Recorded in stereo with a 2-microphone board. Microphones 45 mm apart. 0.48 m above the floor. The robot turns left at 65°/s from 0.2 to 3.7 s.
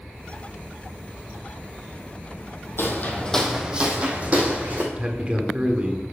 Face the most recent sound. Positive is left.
turn(degrees=-25)  # may be behind; listen again after turning